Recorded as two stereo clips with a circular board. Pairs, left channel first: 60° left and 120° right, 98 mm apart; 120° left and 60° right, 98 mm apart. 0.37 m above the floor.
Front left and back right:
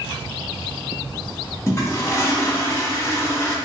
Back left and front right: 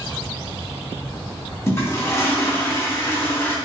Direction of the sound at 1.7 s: 95° left.